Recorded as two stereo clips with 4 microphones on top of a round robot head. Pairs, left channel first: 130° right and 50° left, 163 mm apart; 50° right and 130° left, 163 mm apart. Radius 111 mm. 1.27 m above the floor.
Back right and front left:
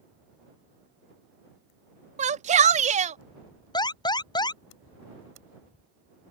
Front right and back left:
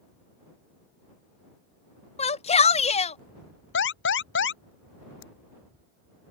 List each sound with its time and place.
2.2 s a shout: straight ahead
3.7 s an alarm: 60° right